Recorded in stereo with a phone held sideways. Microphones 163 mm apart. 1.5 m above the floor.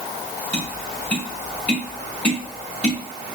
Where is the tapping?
10° left (ahead or behind), 2.5 m.